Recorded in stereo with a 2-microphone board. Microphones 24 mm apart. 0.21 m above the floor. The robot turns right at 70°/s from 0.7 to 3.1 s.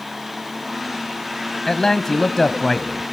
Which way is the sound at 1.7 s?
20° left (ahead or behind).